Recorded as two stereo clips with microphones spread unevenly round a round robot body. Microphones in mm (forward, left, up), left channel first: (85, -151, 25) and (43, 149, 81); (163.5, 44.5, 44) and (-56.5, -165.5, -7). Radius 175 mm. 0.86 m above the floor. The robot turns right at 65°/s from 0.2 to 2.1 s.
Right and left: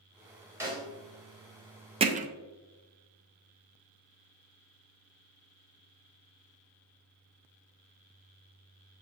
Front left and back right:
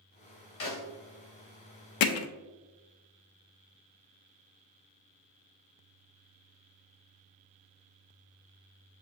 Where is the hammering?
20° left, 0.5 m; by 2.3 s 25° left, 0.5 m.